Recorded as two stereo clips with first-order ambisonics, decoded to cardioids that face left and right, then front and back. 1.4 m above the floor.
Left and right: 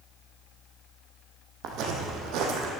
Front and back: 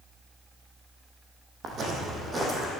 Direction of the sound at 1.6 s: 125° right.